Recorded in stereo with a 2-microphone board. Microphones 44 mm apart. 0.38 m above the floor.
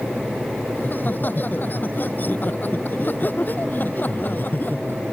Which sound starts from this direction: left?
Laughter, at 0.8 s.